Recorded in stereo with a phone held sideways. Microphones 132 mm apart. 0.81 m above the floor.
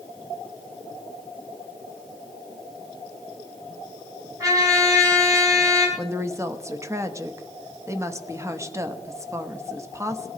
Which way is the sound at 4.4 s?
25° right (ahead or behind).